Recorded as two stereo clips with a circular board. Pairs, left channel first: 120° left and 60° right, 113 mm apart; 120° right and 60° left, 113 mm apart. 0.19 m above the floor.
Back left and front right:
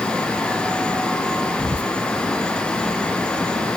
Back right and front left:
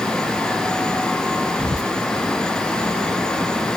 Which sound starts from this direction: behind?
Whispering, at 1.6 s.